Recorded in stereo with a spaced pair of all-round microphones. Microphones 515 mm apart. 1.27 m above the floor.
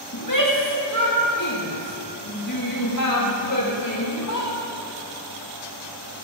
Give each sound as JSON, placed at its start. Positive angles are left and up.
{"t": 0.1, "sound": "a shout", "side_deg": 35, "distance_m": 2.5}